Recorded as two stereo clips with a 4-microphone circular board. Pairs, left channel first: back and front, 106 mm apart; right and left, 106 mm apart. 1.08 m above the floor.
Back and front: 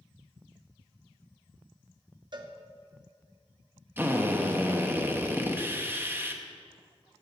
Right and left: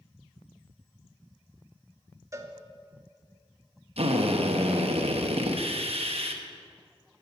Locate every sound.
2.3 s a cowbell: 35° left, 0.7 m
4.0 s a drill: 70° left, 0.8 m